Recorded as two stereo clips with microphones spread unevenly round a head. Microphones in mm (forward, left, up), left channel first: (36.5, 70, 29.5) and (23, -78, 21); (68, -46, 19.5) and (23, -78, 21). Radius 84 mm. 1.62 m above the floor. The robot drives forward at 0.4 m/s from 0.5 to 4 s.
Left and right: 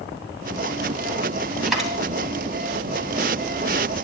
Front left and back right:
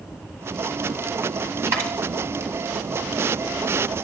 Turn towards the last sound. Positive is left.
turn(degrees=175)